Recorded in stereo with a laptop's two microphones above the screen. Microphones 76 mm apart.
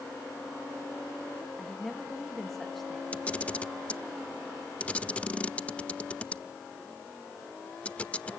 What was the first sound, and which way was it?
A woman speaking, centre (ahead or behind).